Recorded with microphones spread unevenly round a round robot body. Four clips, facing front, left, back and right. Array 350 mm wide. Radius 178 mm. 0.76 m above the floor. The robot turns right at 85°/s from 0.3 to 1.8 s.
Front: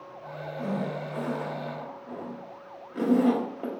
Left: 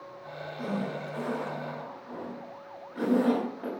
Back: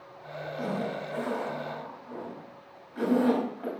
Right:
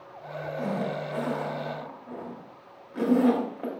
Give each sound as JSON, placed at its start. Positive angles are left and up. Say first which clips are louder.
{"t": 0.6, "sound": "a zipper", "louder": "right 2 dB, front 1 dB", "azimuth_deg": -145, "distance_m": 2.0}